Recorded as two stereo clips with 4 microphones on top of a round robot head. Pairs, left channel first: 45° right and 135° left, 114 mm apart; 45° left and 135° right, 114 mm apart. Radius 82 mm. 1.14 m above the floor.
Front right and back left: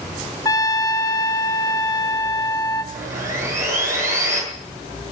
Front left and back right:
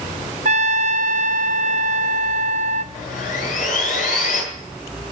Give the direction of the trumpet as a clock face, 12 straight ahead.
4 o'clock.